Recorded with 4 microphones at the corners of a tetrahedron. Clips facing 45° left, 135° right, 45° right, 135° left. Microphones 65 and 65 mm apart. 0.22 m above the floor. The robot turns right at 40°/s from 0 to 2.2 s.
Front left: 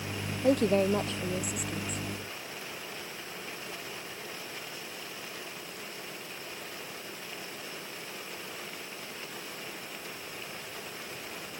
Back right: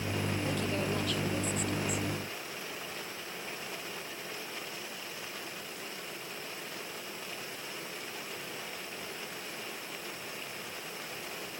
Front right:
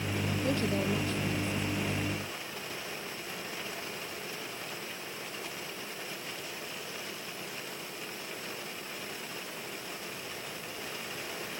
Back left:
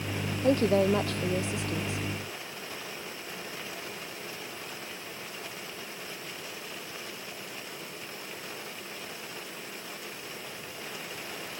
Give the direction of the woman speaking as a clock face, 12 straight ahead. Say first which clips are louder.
Front left 14 dB, back left 9 dB; 9 o'clock.